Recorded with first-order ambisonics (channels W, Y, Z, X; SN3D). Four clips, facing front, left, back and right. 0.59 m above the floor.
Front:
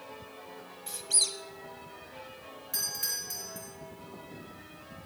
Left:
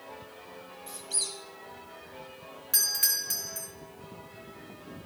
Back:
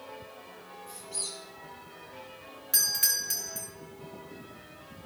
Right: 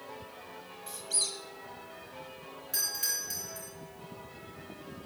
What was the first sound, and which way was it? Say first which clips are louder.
A squeak: right 1 dB, front 9 dB; 5° right.